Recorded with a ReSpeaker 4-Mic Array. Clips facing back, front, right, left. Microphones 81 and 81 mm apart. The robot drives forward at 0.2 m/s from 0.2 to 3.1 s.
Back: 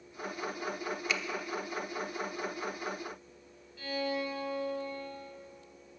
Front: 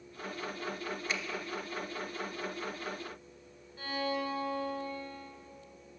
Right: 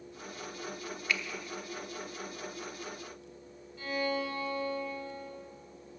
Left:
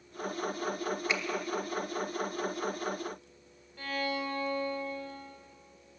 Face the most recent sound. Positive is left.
turn(degrees=55)